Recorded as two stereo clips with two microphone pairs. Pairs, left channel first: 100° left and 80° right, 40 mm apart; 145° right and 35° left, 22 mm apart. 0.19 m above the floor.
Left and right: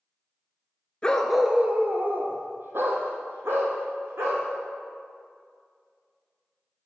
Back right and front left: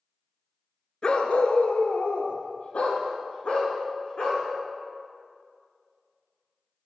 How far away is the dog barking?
About 0.7 m.